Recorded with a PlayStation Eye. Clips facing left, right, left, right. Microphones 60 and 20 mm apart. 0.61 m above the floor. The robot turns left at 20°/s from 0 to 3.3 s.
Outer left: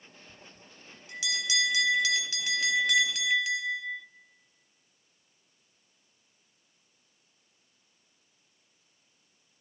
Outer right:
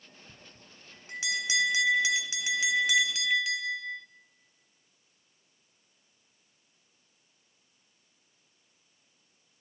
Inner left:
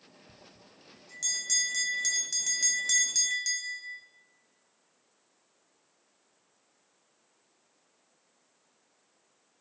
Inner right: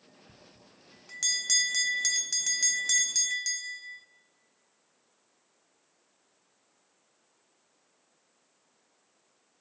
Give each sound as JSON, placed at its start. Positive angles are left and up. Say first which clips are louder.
{"t": 0.3, "sound": "a bell", "louder": "outer left 1 dB, inner left 1 dB", "azimuth_deg": -120, "distance_m": 0.6}